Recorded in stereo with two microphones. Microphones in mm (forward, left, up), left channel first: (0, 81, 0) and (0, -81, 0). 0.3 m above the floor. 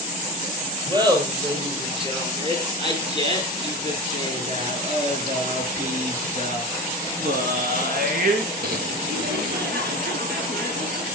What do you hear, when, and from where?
0.9 s laughter: 25° right (ahead or behind), 7.5 m; by 11.1 s 75° right (ahead or behind), 6.5 m